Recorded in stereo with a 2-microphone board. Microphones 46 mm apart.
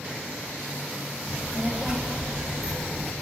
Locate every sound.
1.3 s a child speaking: 25° right (ahead or behind), 1.9 m; by 3.1 s centre (ahead or behind), 0.6 m